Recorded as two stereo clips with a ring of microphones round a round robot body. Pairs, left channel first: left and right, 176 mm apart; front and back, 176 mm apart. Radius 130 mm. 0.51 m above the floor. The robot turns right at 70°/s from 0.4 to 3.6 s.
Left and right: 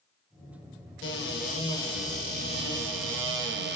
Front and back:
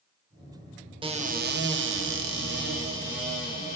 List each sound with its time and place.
1.0 s a cupboard door: 115° left, 0.6 m; by 3.8 s 65° right, 0.6 m